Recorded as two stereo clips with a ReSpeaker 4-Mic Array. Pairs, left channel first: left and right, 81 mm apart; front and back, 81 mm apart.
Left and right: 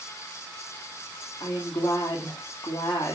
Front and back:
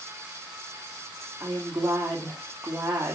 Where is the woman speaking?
115° left, 2.5 m.